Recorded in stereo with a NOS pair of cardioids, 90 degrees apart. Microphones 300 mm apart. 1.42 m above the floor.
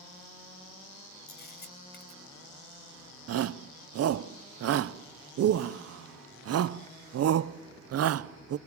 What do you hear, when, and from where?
1.3 s a camera shutter: 35° left, 4 m
3.3 s a shout: 55° right, 0.8 m